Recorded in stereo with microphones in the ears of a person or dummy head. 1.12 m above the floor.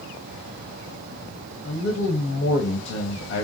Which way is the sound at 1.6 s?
85° left.